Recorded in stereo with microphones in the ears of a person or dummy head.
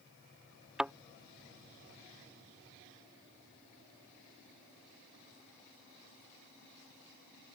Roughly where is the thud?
Centre.